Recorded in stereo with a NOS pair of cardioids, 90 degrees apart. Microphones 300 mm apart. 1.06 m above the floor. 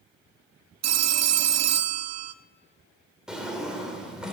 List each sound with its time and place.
0.8 s a phone ringing: 60° right, 0.6 m
3.3 s a drawer: straight ahead, 2 m